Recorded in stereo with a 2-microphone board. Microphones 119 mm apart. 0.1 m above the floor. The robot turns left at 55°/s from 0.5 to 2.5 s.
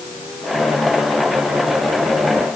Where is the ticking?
I don't hear ticking.